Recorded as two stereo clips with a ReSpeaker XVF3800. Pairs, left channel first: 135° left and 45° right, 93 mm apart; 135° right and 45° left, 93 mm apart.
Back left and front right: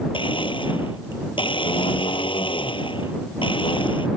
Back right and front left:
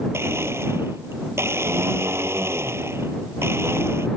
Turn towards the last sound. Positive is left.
turn(degrees=110)